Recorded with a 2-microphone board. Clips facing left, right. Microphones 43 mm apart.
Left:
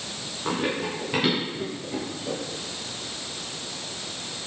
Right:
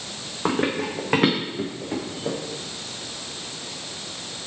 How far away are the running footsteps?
About 3 m.